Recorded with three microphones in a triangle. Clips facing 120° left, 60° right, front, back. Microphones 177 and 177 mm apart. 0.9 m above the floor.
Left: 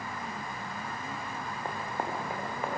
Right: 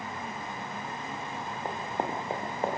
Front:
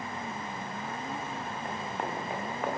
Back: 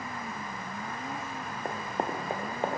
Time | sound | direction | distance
1.6 | running footsteps | 135° right | 3.5 m